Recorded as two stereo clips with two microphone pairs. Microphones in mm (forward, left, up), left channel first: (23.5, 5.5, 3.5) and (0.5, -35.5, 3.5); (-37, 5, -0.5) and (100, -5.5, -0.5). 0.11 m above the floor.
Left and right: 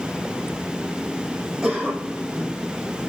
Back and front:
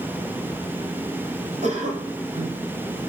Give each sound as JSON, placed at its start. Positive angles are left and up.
{"t": 1.6, "sound": "a cough", "azimuth_deg": -35, "distance_m": 4.0}